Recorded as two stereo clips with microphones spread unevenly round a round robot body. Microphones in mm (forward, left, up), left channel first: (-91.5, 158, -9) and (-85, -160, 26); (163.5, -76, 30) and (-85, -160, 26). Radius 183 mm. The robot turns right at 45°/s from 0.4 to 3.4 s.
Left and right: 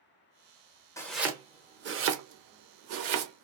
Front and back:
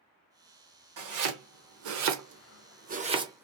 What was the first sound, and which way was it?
Chopping, 175° left.